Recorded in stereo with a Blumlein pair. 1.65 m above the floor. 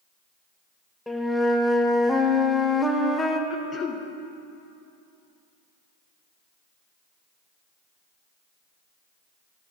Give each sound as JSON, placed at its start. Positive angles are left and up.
{"t": 1.1, "sound": "a flute", "azimuth_deg": 5, "distance_m": 0.7}
{"t": 3.5, "sound": "throat clearing", "azimuth_deg": 20, "distance_m": 0.8}